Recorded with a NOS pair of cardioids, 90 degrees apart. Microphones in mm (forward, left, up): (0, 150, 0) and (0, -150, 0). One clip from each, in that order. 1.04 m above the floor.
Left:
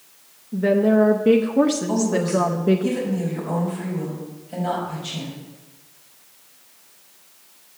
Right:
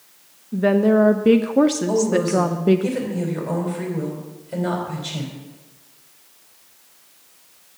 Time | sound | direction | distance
0.5 | a woman speaking | 15° right | 0.5 m
1.9 | a woman speaking | 50° right | 4.5 m